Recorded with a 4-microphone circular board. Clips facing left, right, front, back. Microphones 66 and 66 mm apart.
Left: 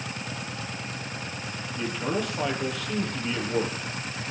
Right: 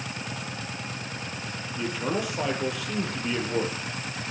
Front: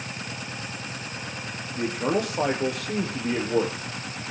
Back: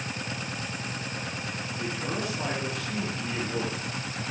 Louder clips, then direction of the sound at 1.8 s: Even, front 8 dB; 5° right.